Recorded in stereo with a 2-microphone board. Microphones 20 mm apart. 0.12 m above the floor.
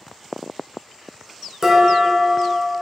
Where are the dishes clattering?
20° right (ahead or behind), 0.7 m.